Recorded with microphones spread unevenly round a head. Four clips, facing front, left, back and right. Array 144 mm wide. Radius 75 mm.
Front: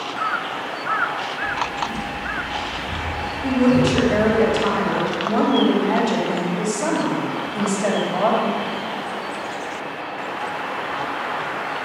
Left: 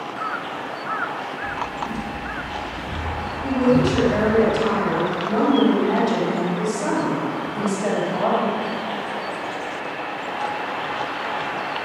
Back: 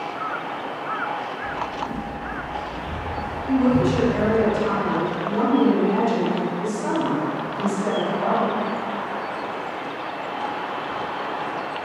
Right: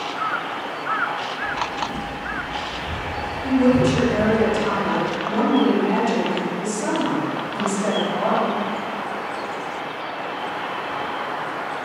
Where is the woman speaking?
10° left, 3.5 m.